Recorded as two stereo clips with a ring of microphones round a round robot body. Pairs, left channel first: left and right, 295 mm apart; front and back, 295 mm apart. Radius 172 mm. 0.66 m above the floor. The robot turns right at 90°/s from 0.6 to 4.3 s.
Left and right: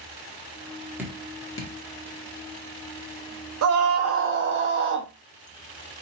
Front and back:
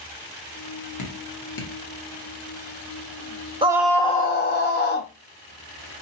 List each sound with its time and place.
1.0 s dripping: 5° right, 1.5 m; by 1.7 s 60° left, 1.5 m
3.6 s a scream: 110° right, 0.7 m; by 5.1 s 50° right, 0.7 m